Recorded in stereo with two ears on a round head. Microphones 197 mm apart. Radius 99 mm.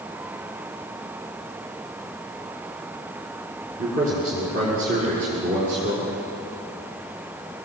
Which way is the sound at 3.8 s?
40° right (ahead or behind).